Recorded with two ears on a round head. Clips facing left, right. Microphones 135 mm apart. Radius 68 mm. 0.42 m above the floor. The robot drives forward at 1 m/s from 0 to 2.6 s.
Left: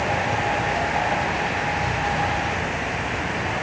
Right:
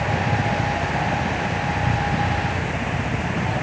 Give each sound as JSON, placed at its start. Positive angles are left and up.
{"t": 0.0, "sound": "a helicopter", "side_deg": -60}